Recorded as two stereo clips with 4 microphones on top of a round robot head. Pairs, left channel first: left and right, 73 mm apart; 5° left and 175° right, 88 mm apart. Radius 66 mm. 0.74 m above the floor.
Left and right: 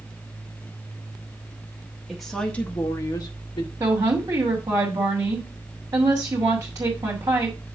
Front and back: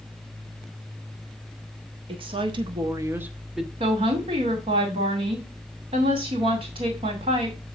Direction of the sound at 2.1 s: 175° right.